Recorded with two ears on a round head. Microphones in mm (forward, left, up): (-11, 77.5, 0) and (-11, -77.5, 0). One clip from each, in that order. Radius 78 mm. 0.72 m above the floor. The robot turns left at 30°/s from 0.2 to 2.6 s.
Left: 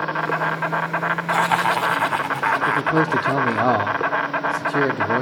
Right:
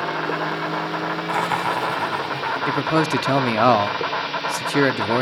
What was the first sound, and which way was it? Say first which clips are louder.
An insect: left 2 dB; 155° left.